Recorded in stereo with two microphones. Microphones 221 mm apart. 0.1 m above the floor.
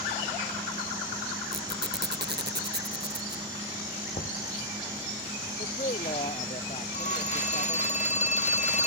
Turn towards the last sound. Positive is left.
turn(degrees=35)  # may be behind; listen again after turning